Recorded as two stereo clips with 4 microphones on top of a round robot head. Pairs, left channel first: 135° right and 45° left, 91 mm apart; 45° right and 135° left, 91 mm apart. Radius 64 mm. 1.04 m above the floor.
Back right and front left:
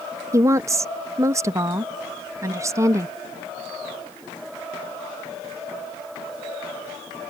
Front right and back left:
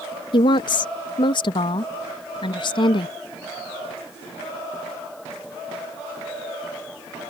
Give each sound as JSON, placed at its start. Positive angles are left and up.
{"t": 0.3, "sound": "a woman speaking", "azimuth_deg": -15}